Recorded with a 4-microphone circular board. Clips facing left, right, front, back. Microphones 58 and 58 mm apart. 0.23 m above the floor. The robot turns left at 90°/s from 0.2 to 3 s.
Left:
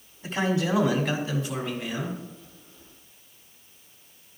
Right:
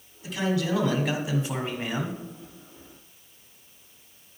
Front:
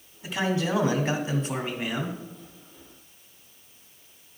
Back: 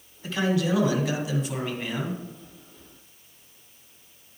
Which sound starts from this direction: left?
A man speaking, at 0.2 s.